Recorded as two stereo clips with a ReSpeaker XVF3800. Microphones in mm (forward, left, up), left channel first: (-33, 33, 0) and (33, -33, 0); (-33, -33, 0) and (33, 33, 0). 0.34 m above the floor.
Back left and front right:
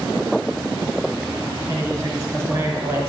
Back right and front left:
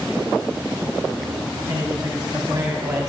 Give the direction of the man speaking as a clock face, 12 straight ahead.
12 o'clock.